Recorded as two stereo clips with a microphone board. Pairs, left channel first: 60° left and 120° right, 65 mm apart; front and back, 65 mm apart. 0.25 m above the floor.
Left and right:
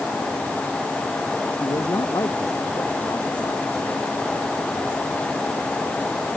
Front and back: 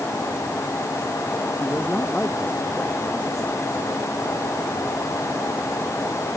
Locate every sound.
1.6 s a man speaking: 65° left